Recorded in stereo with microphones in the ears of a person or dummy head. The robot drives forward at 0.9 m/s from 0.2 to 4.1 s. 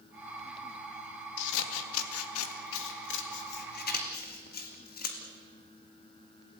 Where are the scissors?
65° left (ahead or behind), 2 m; by 5.2 s 50° left (ahead or behind), 2.5 m.